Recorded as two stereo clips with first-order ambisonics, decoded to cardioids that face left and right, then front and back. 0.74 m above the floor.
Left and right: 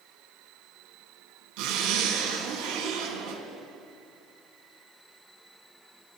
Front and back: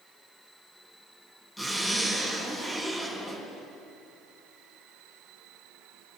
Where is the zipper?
85° right, 6 m.